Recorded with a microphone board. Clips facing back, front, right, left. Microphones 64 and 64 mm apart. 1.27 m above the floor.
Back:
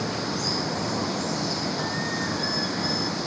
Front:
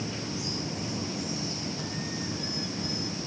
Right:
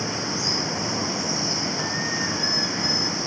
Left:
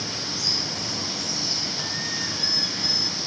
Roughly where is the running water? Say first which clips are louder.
Back 6 dB, right 5 dB; behind right.